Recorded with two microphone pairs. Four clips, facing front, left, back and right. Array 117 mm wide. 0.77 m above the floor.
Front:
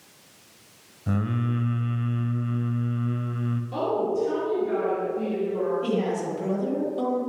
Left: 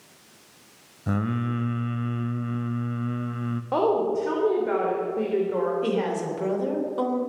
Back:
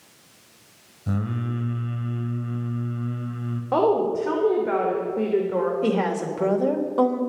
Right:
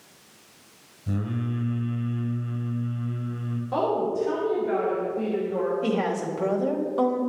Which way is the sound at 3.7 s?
155° left.